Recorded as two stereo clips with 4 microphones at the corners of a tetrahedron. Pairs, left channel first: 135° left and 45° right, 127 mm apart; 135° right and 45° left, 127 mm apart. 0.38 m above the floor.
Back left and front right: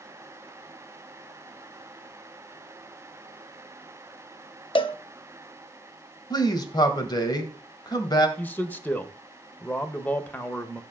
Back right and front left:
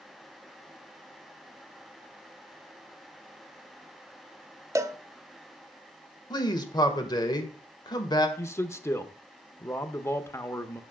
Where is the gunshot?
I don't hear a gunshot.